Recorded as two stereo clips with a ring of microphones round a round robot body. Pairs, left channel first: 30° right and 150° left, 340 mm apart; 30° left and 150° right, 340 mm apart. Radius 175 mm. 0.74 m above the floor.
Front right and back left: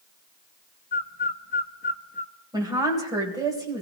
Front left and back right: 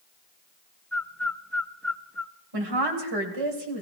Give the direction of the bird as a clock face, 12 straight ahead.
2 o'clock.